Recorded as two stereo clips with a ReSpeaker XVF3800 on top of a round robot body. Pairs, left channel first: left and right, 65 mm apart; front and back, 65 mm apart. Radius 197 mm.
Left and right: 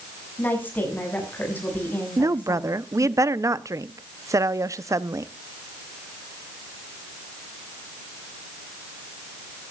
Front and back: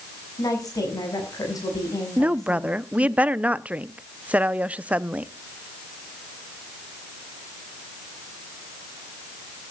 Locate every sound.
0.4 s a woman speaking: 25° left, 7 m
2.2 s a woman speaking: 115° right, 0.9 m